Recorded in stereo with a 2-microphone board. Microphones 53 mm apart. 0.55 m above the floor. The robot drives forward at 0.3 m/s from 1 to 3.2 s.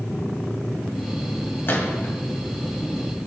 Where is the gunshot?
45° left (ahead or behind), 2 m; by 2.1 s 40° left (ahead or behind), 2.5 m.